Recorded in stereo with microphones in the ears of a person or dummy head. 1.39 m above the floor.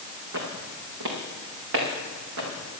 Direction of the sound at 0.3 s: 70° right (ahead or behind).